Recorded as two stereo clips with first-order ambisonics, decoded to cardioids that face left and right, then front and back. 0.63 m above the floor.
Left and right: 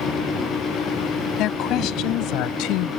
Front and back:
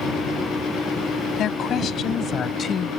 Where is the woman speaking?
50° left; by 2.9 s 65° left.